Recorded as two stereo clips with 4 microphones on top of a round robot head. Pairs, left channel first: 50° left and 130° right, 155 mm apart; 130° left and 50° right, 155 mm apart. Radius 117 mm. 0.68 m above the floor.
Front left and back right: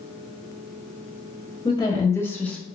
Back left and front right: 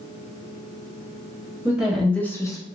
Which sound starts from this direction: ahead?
A woman speaking, at 1.6 s.